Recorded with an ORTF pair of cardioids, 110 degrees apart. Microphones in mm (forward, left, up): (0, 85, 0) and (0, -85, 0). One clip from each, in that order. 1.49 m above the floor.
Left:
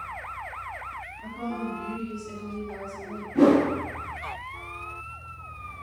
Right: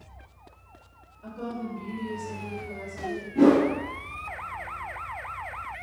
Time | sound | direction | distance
1.2 | a woman speaking | 45° left | 0.9 m
3.4 | a whoosh | 25° left | 0.9 m